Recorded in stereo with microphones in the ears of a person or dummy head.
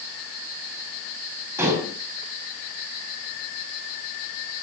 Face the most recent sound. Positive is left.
turn(degrees=-15)  # may be behind; listen again after turning